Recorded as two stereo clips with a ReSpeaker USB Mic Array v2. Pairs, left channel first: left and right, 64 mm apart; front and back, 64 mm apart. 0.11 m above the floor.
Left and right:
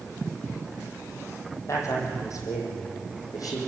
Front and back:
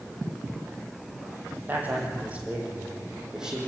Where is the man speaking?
120° left, 5 m; by 3.6 s 100° left, 6.5 m.